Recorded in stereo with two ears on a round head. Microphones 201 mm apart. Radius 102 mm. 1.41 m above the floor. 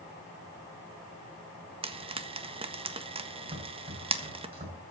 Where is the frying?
25° right (ahead or behind), 1.5 m.